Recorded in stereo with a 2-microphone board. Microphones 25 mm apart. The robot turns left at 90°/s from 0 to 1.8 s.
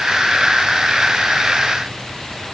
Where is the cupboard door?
I don't hear a cupboard door.